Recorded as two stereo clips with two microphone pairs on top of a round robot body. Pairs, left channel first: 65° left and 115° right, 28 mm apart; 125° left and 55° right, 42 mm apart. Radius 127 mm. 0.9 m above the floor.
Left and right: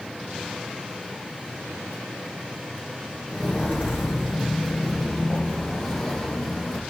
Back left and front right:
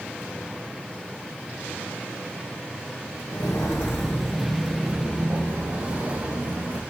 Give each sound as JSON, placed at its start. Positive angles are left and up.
{"t": 3.3, "sound": "footsteps", "azimuth_deg": 130, "distance_m": 1.1}